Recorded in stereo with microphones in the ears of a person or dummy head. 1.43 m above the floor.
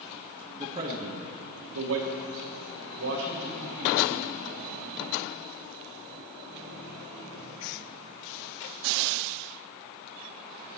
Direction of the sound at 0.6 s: 10° right (ahead or behind).